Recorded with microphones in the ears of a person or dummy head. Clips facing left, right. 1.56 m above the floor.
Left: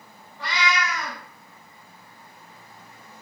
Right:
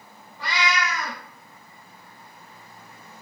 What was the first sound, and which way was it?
A cat meowing, 20° right (ahead or behind).